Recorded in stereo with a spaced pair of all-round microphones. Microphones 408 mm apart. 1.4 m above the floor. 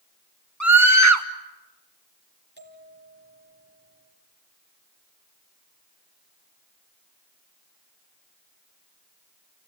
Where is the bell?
25° right (ahead or behind), 3.5 m.